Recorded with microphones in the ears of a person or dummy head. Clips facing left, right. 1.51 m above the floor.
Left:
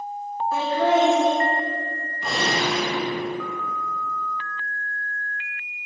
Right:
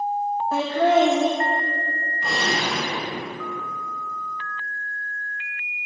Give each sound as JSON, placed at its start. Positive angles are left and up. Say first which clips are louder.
{"t": 0.5, "sound": "laughter", "louder": "right 1 dB", "side_deg": -55, "distance_m": 2.0}
{"t": 2.2, "sound": "a gunshot", "louder": "left 2 dB", "side_deg": 5, "distance_m": 3.0}